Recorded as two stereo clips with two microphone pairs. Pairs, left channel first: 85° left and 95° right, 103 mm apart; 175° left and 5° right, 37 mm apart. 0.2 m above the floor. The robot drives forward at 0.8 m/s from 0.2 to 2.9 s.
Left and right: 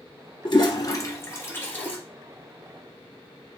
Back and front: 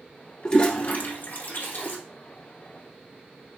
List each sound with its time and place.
0.5 s a toilet flushing: 110° left, 0.7 m; by 2.0 s 155° left, 1.6 m